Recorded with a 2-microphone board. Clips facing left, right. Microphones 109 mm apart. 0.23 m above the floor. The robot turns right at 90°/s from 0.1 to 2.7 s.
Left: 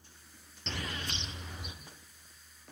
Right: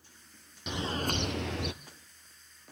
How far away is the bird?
About 1.0 m.